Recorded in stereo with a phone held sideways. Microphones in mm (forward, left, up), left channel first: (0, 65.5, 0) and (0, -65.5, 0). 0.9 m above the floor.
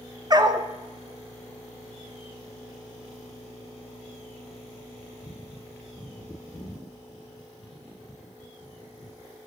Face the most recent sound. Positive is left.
turn(degrees=-35)  # may be behind; listen again after turning